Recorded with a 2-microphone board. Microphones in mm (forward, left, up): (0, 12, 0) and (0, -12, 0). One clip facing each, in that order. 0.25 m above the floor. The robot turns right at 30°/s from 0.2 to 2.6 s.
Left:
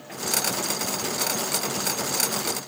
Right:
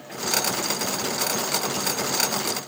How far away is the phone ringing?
I don't hear a phone ringing.